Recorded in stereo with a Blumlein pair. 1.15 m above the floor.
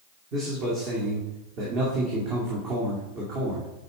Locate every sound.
0.3 s a man speaking: 35° right, 2 m